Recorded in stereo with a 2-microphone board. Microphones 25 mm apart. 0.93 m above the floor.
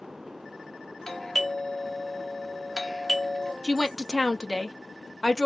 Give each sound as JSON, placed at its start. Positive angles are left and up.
{"t": 1.1, "sound": "a doorbell", "side_deg": 15, "distance_m": 0.7}
{"t": 3.6, "sound": "a woman speaking", "side_deg": 25, "distance_m": 0.6}